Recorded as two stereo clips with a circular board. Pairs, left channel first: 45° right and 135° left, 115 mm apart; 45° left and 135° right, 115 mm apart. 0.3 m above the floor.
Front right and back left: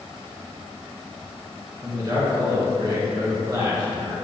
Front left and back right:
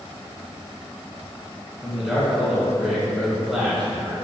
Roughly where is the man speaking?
Behind left.